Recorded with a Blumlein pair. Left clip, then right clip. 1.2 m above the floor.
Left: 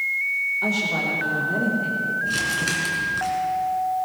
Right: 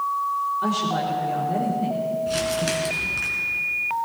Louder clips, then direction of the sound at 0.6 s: Left 1 dB; 5° right.